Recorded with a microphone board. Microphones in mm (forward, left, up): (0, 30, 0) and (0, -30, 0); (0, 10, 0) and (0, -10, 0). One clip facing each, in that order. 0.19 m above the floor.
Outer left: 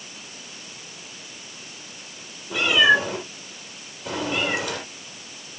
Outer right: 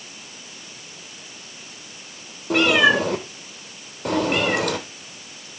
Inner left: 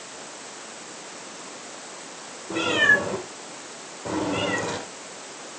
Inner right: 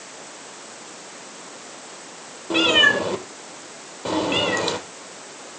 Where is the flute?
No flute in this recording.